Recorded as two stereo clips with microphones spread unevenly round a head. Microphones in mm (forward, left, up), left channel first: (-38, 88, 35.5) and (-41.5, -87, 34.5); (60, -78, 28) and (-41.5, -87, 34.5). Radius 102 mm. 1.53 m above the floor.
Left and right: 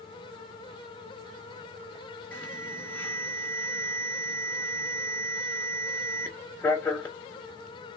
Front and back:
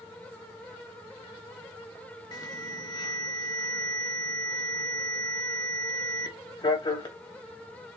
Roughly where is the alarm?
Ahead.